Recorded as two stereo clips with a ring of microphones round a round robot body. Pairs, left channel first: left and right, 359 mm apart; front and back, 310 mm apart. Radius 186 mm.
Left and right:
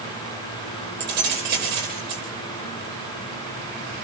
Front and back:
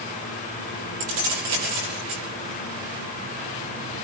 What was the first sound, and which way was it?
Keys jangling, 155° right.